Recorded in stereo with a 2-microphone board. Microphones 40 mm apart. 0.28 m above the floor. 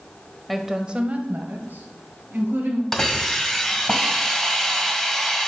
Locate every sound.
0.5 s a woman speaking: centre (ahead or behind), 0.9 m; by 2.8 s 60° right (ahead or behind), 2.5 m
2.9 s a hiss: 5° left (ahead or behind), 1.6 m